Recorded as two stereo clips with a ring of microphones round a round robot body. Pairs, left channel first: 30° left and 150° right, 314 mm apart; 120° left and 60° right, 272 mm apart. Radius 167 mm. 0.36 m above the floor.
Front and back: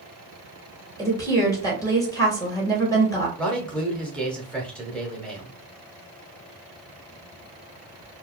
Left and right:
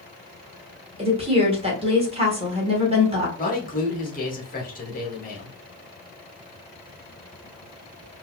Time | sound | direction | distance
1.0 | a woman speaking | 35° right | 1.5 m
3.4 | a man speaking | 115° left | 1.1 m